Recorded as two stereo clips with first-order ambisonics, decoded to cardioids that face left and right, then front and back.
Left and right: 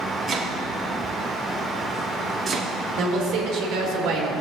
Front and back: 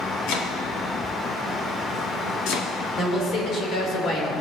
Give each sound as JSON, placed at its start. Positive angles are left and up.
{"t": 0.3, "sound": "chopping", "azimuth_deg": -20, "distance_m": 1.3}
{"t": 3.0, "sound": "a woman speaking", "azimuth_deg": -55, "distance_m": 2.5}